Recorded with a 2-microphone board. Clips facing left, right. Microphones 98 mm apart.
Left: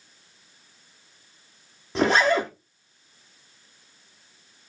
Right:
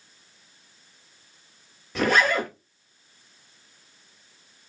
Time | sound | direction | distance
1.9 | a zipper | 30° left (ahead or behind) | 1.4 m